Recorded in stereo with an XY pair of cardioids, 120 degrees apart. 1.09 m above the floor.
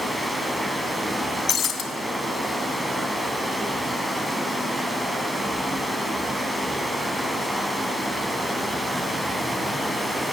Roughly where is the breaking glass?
Ahead left.